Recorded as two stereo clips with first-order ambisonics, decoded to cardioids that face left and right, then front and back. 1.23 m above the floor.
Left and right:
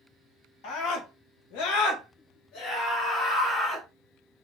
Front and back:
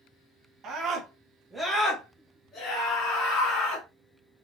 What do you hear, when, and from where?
0.6 s a scream: 125° left, 1.4 m; by 3.9 s 30° left, 2 m